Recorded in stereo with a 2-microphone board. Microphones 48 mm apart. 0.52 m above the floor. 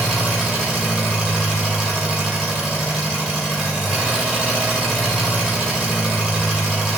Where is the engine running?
15° right (ahead or behind), 0.7 m.